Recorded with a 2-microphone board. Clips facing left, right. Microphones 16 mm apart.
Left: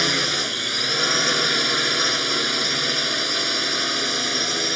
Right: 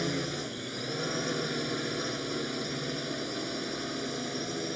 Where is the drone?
60° left (ahead or behind).